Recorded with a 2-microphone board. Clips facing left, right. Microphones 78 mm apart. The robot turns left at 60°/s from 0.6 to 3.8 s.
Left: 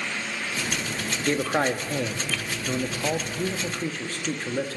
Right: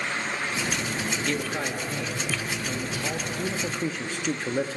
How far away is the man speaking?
About 1.1 m.